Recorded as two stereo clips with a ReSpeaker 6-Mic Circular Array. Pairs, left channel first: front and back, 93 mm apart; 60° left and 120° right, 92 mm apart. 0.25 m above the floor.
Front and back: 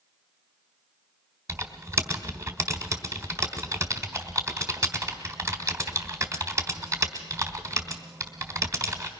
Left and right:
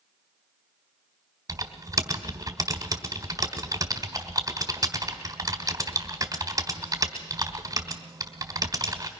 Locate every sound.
1.5 s typing on a keyboard: 140° right, 1.5 m